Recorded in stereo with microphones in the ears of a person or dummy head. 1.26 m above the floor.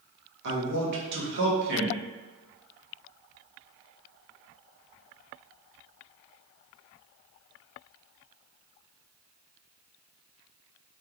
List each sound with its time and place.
0.4 s a man speaking: 65° right (ahead or behind), 1.3 m